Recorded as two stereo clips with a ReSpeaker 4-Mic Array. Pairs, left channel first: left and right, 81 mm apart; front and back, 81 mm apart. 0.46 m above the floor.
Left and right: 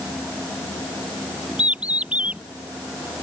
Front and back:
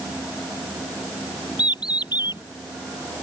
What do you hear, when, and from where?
1.6 s a bird: 15° right